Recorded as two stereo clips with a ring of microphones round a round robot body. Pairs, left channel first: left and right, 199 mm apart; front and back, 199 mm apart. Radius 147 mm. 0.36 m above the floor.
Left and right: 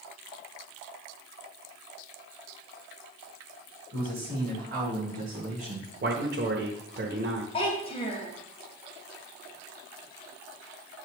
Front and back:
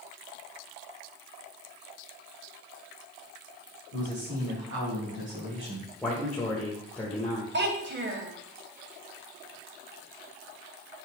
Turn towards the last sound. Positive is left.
turn(degrees=155)